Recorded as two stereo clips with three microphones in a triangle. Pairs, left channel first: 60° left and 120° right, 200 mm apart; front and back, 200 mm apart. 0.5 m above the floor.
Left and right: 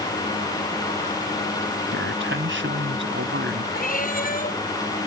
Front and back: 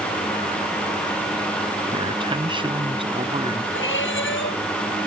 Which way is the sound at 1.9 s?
115° right.